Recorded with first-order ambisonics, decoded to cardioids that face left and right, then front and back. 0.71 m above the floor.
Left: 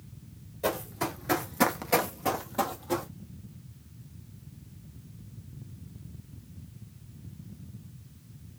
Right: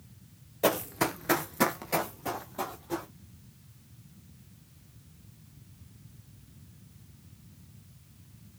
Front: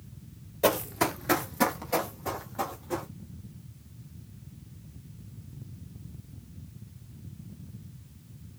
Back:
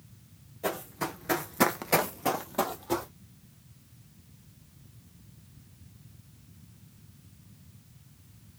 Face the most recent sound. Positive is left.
turn(degrees=150)